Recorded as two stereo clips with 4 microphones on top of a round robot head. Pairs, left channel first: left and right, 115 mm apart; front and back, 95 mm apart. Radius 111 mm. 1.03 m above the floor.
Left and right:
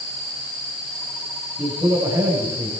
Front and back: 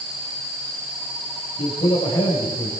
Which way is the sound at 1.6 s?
30° right.